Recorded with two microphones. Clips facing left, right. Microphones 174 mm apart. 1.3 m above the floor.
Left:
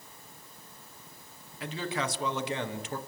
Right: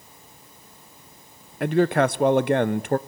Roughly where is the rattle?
I don't hear a rattle.